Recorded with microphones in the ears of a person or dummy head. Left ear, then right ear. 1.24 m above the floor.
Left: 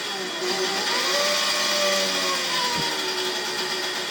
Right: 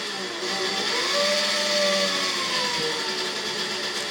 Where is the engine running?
65° left (ahead or behind), 2.0 m.